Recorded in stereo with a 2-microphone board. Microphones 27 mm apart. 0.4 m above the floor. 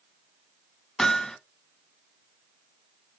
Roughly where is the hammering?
Left.